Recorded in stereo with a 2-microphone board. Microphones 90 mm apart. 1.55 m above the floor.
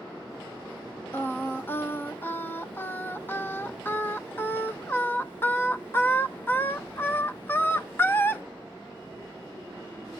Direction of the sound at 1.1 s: 25° left (ahead or behind).